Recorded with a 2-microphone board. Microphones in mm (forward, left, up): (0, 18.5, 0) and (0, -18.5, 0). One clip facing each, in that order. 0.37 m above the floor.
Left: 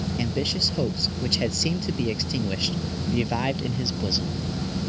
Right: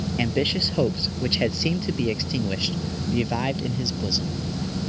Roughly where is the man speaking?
Right.